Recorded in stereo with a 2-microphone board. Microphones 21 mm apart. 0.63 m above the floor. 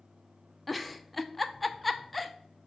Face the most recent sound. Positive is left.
turn(degrees=0)  # may be behind; listen again after turning